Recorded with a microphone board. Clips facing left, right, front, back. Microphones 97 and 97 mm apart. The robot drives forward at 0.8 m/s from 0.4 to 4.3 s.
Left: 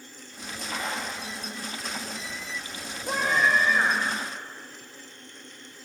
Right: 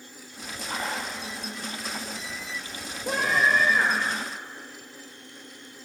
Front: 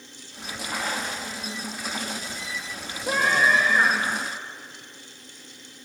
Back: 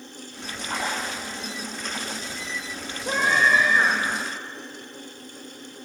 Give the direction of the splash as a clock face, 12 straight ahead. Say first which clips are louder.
Right 1 dB, back 1 dB; 4 o'clock.